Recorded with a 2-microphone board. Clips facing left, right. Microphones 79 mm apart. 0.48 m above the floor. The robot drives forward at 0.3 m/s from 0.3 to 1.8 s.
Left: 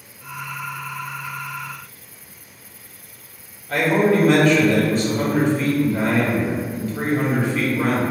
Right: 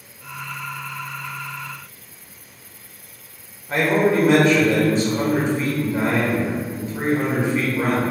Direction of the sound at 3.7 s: 25° right (ahead or behind).